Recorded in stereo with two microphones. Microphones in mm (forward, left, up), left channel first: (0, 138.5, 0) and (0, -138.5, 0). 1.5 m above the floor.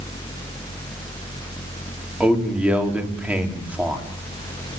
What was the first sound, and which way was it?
A man speaking, 5° right (ahead or behind).